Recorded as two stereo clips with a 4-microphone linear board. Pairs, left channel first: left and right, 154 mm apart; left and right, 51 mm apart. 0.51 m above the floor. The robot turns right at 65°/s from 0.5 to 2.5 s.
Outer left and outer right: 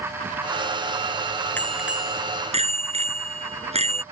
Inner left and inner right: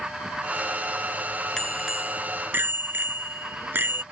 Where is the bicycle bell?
165° left; by 4.0 s 130° right.